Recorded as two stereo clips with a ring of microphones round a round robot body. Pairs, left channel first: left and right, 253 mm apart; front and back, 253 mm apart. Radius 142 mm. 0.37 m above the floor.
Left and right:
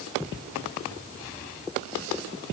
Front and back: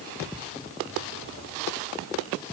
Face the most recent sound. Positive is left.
No sound to turn to.